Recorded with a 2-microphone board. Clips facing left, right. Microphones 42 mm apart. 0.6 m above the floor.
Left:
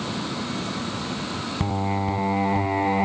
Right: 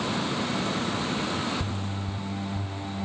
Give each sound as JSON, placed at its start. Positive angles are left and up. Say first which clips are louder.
{"t": 1.6, "sound": "singing", "louder": "left 8 dB", "side_deg": 80}